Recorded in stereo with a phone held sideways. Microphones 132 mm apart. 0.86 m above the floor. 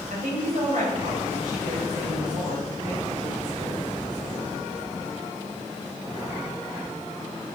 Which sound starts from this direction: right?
A woman speaking, at 0.1 s.